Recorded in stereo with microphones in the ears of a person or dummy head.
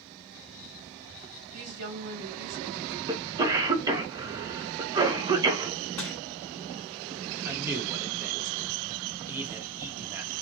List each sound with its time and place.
1.5 s a woman speaking: 65° right (ahead or behind), 1.7 m
3.1 s a cough: 20° right (ahead or behind), 0.7 m
6.0 s crushing: 15° left (ahead or behind), 0.9 m
7.5 s a man speaking: 10° right (ahead or behind), 0.8 m